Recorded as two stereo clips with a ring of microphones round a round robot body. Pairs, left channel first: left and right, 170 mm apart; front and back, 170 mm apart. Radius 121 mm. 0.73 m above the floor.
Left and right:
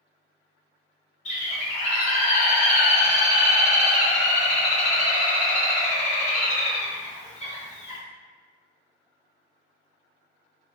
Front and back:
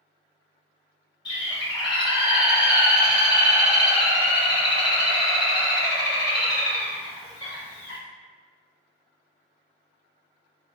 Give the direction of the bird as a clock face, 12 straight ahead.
10 o'clock.